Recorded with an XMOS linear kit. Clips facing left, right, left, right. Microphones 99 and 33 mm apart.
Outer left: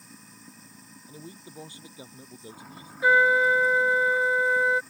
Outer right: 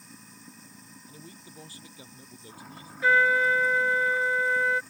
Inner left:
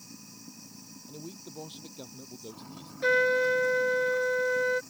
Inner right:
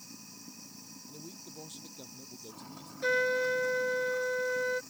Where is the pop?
I don't hear a pop.